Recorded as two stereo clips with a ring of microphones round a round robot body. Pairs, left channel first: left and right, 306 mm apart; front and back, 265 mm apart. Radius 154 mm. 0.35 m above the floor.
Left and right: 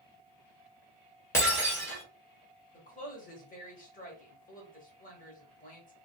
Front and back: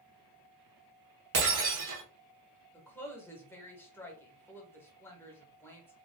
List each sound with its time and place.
1.3 s breaking glass: 170° left, 1.4 m
2.7 s a woman speaking: 70° left, 0.9 m